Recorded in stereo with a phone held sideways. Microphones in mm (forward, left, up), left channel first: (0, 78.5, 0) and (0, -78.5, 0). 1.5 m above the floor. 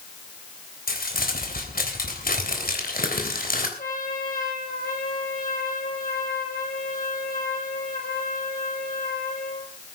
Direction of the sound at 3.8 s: 65° left (ahead or behind).